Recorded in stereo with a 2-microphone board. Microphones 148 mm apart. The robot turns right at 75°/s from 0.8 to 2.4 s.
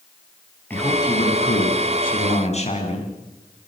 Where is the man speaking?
15° left, 8 m; by 3.1 s 135° left, 8 m.